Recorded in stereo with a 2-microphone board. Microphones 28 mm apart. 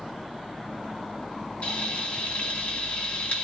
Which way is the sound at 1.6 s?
60° left (ahead or behind).